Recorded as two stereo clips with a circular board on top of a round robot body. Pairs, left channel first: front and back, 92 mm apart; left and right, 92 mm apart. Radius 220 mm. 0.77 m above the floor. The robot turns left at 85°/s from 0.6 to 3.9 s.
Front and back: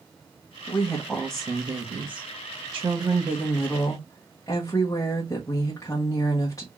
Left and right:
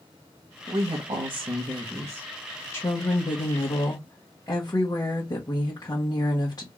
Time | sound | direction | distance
0.7 | a woman speaking | 40° right | 1.6 m